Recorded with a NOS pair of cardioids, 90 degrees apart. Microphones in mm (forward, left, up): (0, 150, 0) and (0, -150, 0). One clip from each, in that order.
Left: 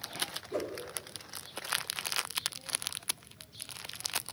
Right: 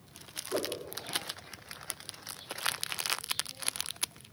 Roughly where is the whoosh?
Ahead.